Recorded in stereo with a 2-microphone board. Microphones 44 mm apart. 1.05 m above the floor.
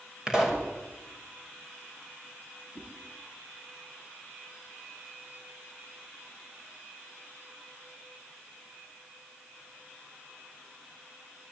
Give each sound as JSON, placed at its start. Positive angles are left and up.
{"t": 0.3, "sound": "a pop", "side_deg": -15, "distance_m": 6.0}
{"t": 2.8, "sound": "a whoosh", "side_deg": -30, "distance_m": 8.0}